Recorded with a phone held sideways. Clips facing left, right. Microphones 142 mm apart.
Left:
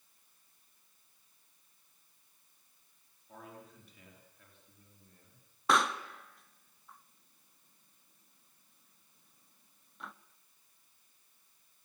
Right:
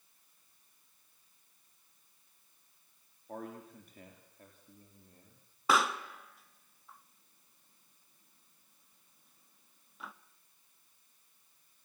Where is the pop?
5° right (ahead or behind), 0.8 m.